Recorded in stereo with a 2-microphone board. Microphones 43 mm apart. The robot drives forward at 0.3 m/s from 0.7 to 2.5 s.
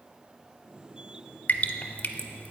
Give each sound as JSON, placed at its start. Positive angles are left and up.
{"t": 1.5, "sound": "dripping", "side_deg": 40, "distance_m": 0.6}